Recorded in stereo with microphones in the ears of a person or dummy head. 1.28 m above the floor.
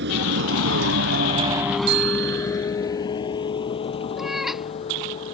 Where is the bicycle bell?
60° right (ahead or behind).